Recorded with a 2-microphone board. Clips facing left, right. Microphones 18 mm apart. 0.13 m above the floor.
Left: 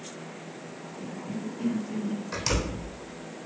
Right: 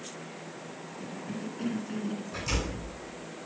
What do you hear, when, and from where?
1.0 s a cough: 20° right (ahead or behind), 1.7 m
2.3 s a door slam: 60° left (ahead or behind), 3.5 m